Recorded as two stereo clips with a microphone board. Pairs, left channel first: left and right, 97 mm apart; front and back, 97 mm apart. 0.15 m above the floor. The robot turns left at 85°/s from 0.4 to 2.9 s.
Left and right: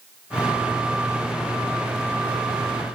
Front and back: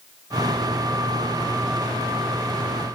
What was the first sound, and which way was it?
Only background noise.